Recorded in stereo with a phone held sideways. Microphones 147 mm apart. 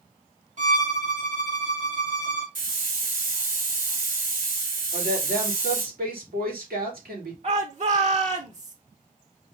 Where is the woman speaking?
85° right, 3 m.